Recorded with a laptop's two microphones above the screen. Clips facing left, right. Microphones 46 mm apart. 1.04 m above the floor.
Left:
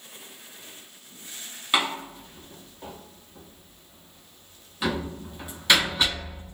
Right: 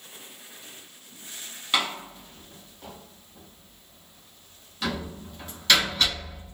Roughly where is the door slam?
Centre.